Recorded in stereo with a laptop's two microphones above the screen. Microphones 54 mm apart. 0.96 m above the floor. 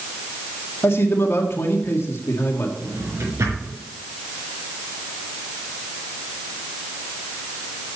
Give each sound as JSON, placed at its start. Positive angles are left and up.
{"t": 0.8, "sound": "a man speaking", "side_deg": 60, "distance_m": 1.8}
{"t": 2.8, "sound": "a drawer", "side_deg": -85, "distance_m": 4.5}